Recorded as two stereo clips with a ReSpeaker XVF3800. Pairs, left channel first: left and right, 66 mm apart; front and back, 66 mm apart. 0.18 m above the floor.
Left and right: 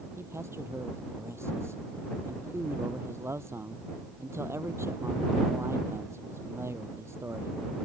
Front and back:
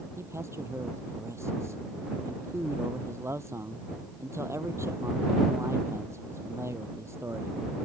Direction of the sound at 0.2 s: 135° right.